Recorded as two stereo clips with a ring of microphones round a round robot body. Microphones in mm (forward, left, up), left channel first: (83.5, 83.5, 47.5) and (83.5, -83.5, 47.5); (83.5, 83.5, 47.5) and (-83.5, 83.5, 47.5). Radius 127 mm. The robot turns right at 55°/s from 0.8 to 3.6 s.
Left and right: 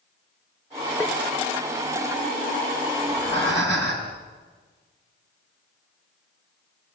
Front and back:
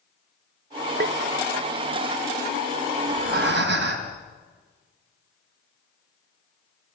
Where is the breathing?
135° left, 4 m; by 4.2 s 170° left, 4 m.